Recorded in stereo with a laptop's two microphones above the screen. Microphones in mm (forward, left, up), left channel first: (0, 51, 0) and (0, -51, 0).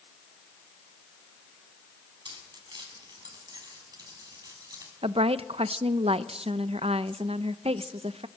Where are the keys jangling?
50° right (ahead or behind), 7 m; by 4.9 s 35° right (ahead or behind), 6.5 m.